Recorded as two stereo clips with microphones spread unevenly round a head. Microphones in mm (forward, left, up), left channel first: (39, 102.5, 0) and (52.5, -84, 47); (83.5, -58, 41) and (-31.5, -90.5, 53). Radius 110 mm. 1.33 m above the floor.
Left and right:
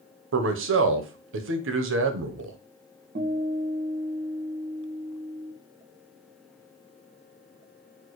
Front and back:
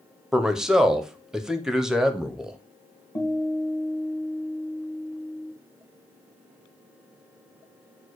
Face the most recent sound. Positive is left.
turn(degrees=-45)